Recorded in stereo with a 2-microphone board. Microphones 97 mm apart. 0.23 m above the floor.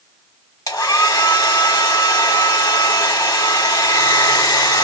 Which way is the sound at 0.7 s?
35° left (ahead or behind).